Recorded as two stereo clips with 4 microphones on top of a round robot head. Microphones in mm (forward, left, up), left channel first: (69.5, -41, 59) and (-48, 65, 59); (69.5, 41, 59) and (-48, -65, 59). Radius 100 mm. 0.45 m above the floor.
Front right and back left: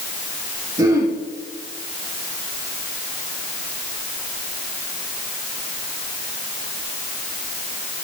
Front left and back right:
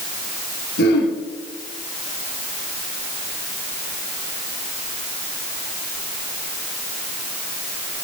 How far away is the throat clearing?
About 5.5 m.